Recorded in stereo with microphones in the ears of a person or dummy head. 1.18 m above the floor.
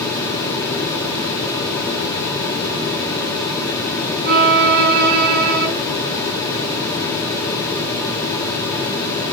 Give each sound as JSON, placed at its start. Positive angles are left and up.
{"t": 4.2, "sound": "a violin", "side_deg": -50, "distance_m": 6.5}